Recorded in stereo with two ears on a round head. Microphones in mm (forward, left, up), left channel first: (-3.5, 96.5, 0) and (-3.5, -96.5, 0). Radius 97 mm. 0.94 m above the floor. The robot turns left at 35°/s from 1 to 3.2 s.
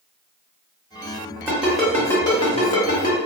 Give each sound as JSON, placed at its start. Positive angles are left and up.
{"t": 1.5, "sound": "a ringtone", "side_deg": -10, "distance_m": 0.9}